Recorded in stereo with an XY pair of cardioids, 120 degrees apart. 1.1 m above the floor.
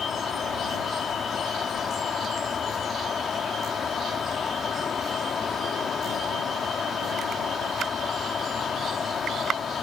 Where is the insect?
40° left.